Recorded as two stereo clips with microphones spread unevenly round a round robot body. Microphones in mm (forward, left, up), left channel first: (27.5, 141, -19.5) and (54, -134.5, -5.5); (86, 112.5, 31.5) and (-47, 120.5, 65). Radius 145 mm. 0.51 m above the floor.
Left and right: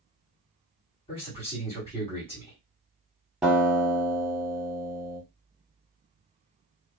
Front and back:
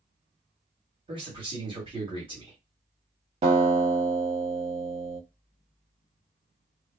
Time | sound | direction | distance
1.1 | a man speaking | 140° left | 1.5 m
3.4 | a guitar | 175° right | 0.9 m